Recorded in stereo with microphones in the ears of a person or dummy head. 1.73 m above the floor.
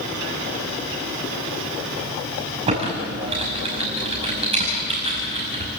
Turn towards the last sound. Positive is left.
turn(degrees=-30)  # may be behind; listen again after turning